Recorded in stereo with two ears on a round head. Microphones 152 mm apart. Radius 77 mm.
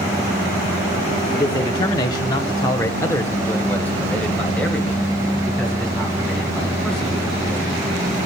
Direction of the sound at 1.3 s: 20° left (ahead or behind).